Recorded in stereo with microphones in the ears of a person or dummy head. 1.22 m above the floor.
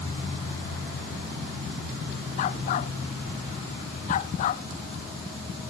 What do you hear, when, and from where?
2.4 s a dog barking: 45° left (ahead or behind)